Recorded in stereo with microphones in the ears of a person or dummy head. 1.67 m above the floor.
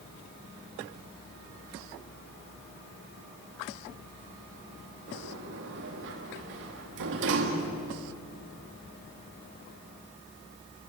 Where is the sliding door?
65° right (ahead or behind), 2.5 m.